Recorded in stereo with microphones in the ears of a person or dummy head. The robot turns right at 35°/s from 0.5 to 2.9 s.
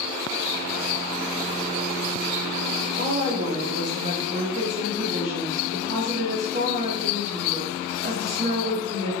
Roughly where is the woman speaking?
Right.